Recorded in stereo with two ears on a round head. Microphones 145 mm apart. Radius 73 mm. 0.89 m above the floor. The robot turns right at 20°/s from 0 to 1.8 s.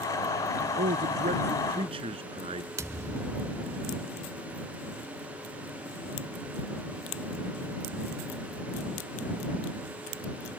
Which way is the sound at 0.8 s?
55° right (ahead or behind).